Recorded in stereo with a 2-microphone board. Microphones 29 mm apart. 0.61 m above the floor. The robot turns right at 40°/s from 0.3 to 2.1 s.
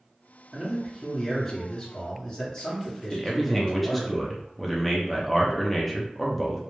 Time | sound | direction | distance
0.5 | a man speaking | 25° right | 0.8 m
3.1 | a man speaking | 5° left (ahead or behind) | 0.6 m